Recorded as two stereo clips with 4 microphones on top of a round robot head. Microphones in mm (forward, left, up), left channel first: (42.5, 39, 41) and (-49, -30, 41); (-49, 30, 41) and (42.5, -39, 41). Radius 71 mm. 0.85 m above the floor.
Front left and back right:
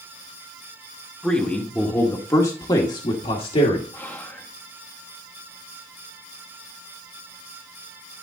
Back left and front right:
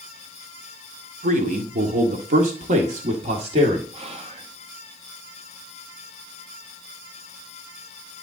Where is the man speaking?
50° right, 2.0 m; by 3.8 s straight ahead, 1.8 m.